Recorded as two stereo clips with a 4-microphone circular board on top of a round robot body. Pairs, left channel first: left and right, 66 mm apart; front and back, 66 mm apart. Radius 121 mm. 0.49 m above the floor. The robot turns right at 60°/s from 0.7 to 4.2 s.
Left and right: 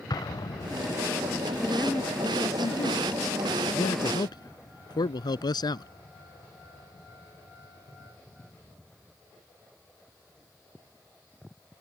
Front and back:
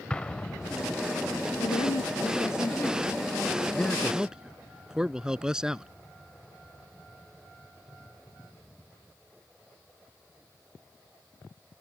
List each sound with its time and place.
0.1 s an explosion: 75° left; by 0.9 s 90° left
1.6 s a woman speaking: 5° right; by 3.1 s 85° left
3.7 s a man speaking: 75° left; by 5.9 s 100° left